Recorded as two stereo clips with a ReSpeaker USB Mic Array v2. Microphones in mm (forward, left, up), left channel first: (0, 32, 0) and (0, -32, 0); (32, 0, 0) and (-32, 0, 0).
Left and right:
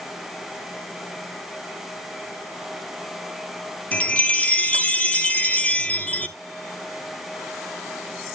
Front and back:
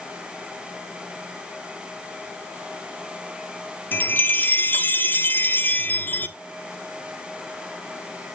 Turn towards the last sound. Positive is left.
turn(degrees=35)